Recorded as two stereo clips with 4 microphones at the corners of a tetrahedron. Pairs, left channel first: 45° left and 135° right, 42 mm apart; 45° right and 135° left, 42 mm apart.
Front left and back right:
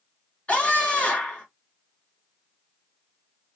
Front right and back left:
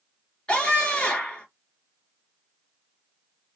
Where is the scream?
10° left, 2 m.